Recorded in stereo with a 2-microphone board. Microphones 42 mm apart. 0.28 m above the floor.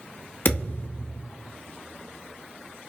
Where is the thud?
55° left (ahead or behind), 0.9 m.